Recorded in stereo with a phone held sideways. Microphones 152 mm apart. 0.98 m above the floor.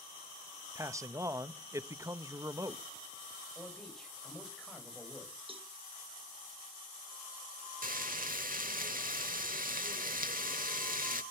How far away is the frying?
About 1.3 m.